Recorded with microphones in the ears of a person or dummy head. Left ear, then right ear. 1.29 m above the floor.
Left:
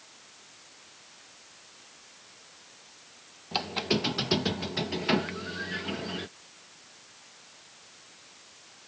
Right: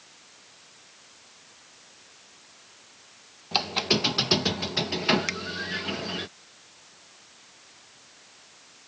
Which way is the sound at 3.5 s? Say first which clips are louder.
Right 5 dB; 15° right (ahead or behind).